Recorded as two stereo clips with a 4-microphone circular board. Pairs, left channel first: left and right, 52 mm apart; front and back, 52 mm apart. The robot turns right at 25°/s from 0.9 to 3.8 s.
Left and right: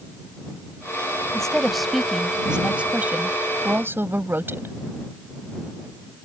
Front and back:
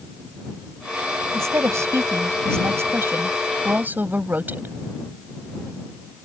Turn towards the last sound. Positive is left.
turn(degrees=-130)